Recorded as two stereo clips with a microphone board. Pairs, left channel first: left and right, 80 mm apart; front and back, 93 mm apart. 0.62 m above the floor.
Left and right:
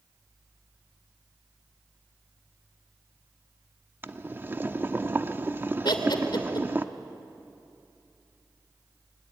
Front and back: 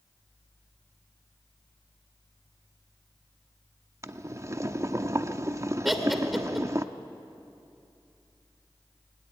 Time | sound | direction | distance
4.0 | boiling | 140° right | 0.7 m
5.8 | laughter | 90° left | 2.5 m